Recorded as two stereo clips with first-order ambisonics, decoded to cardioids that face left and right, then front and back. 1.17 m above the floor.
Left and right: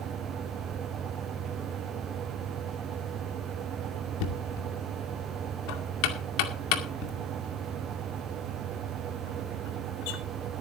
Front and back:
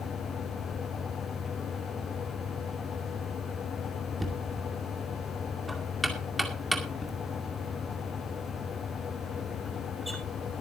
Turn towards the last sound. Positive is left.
turn(degrees=90)